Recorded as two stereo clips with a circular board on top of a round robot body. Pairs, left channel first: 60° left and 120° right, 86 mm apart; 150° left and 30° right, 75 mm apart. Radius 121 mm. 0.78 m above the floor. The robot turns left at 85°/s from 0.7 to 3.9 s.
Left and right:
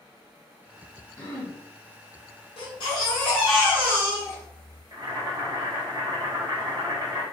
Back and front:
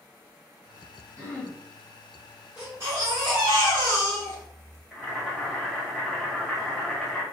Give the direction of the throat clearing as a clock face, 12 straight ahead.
8 o'clock.